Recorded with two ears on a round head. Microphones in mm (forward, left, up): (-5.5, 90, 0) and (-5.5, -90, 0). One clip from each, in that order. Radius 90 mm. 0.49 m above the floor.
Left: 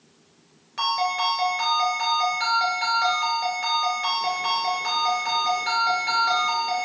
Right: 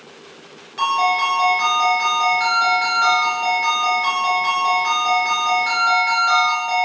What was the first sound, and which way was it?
A ringtone, 15° left (ahead or behind).